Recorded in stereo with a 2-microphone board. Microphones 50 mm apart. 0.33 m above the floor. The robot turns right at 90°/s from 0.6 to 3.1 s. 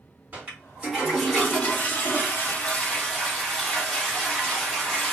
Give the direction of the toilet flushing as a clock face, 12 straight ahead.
2 o'clock.